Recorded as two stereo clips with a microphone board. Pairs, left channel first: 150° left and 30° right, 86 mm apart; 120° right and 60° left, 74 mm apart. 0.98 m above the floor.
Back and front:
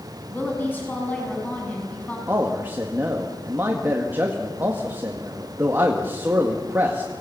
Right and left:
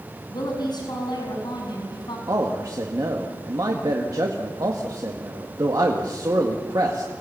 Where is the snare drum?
I don't hear a snare drum.